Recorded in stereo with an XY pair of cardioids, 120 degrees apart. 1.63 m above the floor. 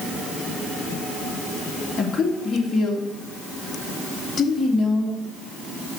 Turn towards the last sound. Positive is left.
turn(degrees=30)